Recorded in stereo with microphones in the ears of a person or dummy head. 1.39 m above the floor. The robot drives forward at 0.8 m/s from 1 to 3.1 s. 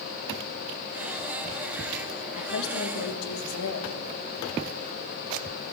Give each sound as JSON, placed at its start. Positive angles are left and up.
{"t": 2.4, "sound": "a woman speaking", "side_deg": 70, "distance_m": 1.7}